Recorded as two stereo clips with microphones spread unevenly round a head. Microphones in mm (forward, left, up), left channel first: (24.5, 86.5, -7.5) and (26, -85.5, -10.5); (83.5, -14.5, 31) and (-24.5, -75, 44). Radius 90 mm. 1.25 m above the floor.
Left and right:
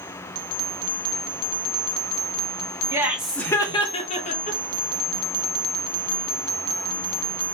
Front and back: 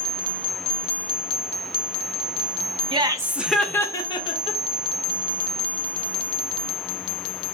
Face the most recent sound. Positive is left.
turn(degrees=50)